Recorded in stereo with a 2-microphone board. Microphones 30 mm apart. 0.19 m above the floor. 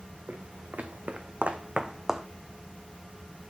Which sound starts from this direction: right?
Footsteps, at 0.3 s.